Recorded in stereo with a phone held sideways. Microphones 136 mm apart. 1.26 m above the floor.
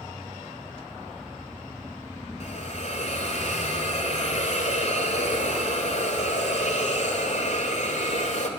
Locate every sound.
2.4 s a hiss: 60° left (ahead or behind), 3 m